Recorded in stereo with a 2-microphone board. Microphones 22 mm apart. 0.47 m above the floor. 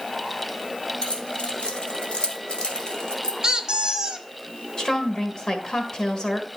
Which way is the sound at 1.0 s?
65° left (ahead or behind).